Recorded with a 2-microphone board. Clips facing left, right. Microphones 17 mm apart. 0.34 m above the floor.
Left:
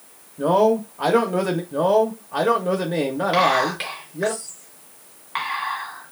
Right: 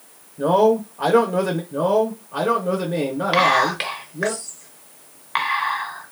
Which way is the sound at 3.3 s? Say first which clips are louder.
Right 2 dB; 30° right (ahead or behind).